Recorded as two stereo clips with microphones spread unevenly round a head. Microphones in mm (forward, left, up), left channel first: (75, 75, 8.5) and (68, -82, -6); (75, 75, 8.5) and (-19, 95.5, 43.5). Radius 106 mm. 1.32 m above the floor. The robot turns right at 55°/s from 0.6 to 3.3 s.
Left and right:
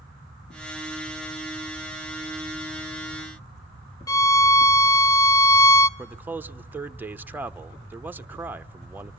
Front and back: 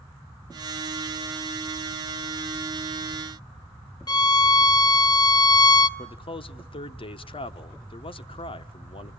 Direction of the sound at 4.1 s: 40° left.